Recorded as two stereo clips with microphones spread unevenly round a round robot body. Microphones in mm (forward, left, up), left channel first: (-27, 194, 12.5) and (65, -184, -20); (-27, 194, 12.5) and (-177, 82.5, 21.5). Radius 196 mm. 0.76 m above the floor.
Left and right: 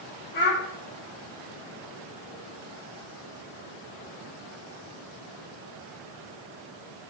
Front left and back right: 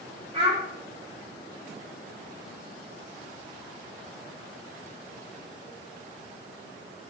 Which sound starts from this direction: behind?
A child speaking, at 0.3 s.